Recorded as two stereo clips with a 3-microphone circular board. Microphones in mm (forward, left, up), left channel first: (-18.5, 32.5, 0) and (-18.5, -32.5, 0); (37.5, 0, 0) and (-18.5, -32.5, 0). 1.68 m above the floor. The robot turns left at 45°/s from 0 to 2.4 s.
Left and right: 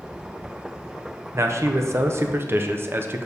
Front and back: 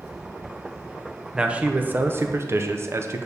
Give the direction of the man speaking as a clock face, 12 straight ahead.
3 o'clock.